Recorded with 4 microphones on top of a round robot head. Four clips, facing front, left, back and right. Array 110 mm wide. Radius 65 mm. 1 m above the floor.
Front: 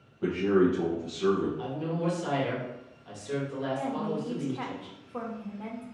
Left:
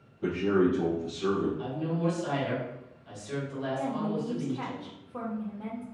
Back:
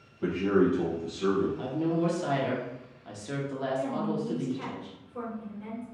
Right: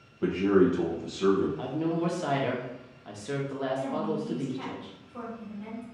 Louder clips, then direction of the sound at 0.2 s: Right 3 dB, front 1 dB; 80° right.